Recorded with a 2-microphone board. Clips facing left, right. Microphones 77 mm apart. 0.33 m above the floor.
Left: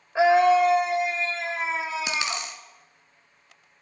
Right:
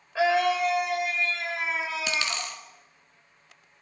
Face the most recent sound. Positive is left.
turn(degrees=20)  # may be behind; listen again after turning